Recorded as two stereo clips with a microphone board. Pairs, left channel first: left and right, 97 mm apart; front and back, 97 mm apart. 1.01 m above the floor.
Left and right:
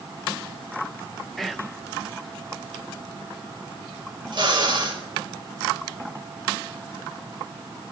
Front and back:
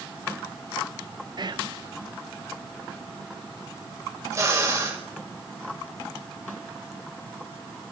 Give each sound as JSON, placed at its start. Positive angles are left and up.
{"t": 1.4, "sound": "whispering", "azimuth_deg": 180, "distance_m": 0.8}
{"t": 4.3, "sound": "a drill", "azimuth_deg": -125, "distance_m": 5.0}